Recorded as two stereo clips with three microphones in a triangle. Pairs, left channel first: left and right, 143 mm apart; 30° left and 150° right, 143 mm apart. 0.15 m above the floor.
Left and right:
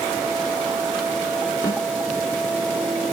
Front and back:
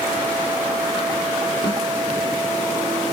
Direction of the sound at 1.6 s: 50° left.